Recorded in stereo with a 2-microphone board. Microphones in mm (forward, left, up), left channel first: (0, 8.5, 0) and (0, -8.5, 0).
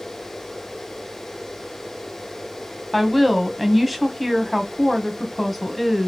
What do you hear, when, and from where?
2.9 s a woman speaking: centre (ahead or behind), 1.2 m